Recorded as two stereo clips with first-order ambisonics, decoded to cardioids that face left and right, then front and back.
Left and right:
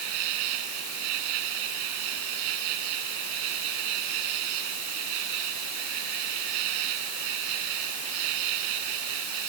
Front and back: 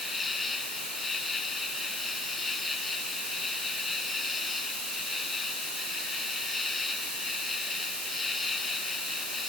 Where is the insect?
75° right.